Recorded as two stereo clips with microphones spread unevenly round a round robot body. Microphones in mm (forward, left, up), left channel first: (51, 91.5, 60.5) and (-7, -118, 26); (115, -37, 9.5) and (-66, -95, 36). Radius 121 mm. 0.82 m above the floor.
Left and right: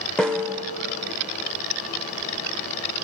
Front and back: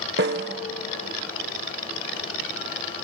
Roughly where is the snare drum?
Behind left.